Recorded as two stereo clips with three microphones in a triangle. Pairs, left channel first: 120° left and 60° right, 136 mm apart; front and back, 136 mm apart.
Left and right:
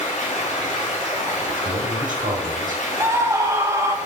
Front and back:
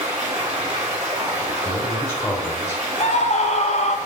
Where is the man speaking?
65° right, 1.4 m.